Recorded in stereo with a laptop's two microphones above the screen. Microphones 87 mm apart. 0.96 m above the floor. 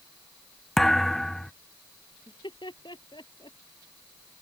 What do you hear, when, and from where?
0.8 s a thud: 5° left (ahead or behind)
2.3 s laughter: 60° left (ahead or behind)